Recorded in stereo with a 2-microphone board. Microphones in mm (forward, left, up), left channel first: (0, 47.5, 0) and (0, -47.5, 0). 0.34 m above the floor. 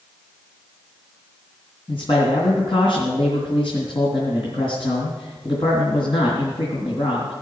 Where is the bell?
No bell in this recording.